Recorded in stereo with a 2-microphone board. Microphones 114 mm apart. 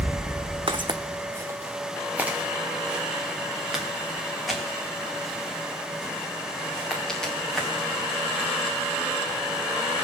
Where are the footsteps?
50° right (ahead or behind), 0.8 m; by 8.5 s 5° left (ahead or behind), 5 m.